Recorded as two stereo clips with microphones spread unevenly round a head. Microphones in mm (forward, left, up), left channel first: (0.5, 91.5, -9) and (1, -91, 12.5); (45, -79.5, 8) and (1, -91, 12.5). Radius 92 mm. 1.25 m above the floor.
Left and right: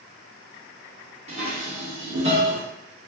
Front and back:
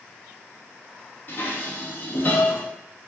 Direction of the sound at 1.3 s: 35° right.